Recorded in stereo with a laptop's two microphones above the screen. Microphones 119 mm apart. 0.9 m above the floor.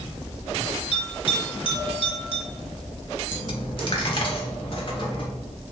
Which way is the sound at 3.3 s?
45° left (ahead or behind).